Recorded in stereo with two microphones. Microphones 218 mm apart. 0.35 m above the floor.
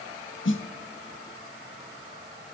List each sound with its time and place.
0.5 s a snare drum: 60° left (ahead or behind), 0.5 m